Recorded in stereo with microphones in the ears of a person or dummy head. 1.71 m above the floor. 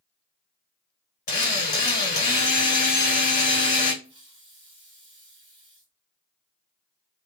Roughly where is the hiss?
Right.